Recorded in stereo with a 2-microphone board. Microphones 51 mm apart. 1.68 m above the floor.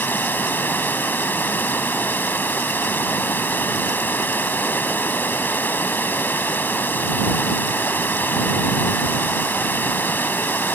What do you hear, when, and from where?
0.0 s running water: 35° left (ahead or behind)